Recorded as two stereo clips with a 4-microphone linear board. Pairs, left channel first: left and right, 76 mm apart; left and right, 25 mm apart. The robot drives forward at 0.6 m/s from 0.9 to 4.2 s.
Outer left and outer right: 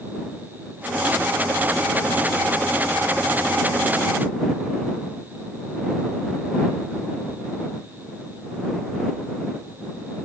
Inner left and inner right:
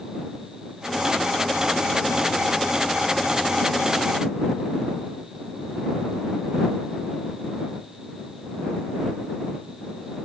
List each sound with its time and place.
Only background noise.